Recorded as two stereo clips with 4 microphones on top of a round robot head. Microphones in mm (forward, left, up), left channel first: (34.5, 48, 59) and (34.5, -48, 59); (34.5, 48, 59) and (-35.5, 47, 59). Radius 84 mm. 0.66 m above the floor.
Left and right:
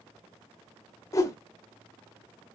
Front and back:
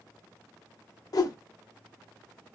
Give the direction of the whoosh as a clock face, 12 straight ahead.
11 o'clock.